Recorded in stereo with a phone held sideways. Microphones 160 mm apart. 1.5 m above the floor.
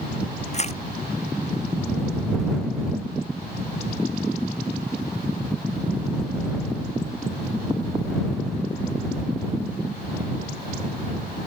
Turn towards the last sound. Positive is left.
turn(degrees=40)  # may be behind; listen again after turning